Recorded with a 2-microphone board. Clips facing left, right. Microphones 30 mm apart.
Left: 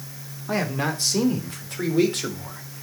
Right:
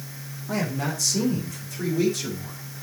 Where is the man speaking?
30° left (ahead or behind), 2.5 m; by 2.8 s 55° left (ahead or behind), 3.5 m.